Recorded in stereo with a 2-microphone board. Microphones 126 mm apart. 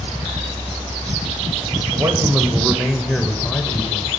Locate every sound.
1.9 s a man speaking: 30° right (ahead or behind), 1.1 m; by 4.1 s 25° left (ahead or behind), 1.1 m